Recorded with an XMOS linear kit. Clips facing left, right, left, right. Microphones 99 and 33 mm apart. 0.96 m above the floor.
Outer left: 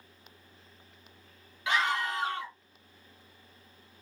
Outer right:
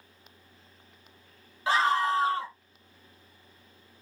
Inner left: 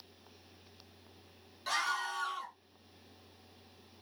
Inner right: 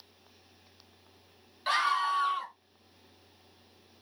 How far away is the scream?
About 0.9 m.